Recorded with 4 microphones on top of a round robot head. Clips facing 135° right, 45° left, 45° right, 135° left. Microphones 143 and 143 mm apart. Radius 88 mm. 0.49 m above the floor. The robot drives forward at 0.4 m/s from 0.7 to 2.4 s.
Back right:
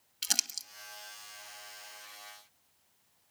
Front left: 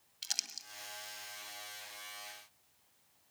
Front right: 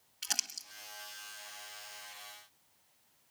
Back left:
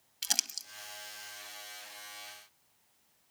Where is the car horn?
I don't hear a car horn.